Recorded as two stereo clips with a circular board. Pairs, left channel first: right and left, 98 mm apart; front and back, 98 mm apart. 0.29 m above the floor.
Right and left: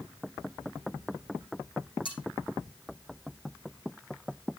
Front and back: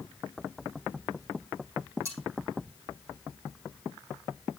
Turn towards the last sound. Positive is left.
turn(degrees=-120)